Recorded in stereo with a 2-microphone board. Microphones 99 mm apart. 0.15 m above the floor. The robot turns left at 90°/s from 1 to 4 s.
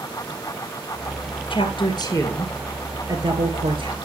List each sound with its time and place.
1.5 s a woman speaking: 100° left, 2.5 m; by 3.9 s 120° right, 2.5 m